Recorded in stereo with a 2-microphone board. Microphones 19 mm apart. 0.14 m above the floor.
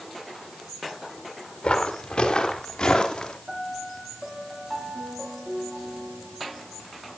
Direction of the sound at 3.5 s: 30° right (ahead or behind).